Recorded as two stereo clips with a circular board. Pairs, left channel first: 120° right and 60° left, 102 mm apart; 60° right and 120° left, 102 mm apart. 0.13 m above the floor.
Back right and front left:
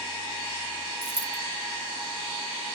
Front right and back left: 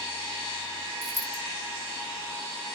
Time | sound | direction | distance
1.0 | a dropped coin | 170° left | 0.7 m